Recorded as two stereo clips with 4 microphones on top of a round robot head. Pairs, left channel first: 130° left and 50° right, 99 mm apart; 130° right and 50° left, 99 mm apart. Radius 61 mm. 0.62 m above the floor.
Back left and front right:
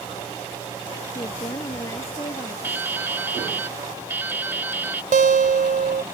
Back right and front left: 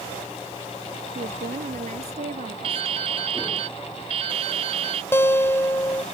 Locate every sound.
1.1 s a woman speaking: 70° left
2.6 s dripping: 20° left
5.1 s a guitar: 60° right